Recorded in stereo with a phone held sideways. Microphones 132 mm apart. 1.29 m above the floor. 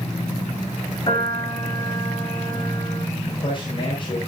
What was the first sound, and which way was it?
A piano, 35° left (ahead or behind).